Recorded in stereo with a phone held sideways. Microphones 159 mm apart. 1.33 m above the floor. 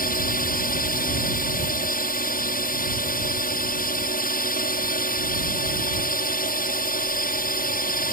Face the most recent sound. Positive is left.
turn(degrees=65)  # may be behind; listen again after turning